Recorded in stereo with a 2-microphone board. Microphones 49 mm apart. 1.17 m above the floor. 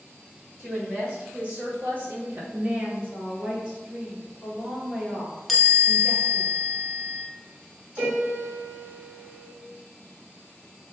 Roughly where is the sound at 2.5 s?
Centre.